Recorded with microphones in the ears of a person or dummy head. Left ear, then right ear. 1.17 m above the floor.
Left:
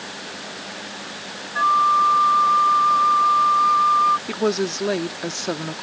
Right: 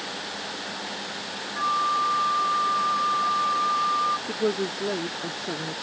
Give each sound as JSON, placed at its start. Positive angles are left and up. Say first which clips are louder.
{"t": 1.6, "sound": "a flute", "louder": "left 8 dB", "side_deg": 70}
{"t": 4.3, "sound": "a woman speaking", "louder": "left 4 dB", "side_deg": 45}